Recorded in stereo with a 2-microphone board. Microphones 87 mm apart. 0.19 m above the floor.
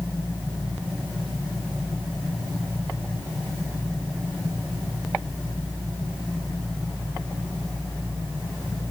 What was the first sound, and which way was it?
Only background noise.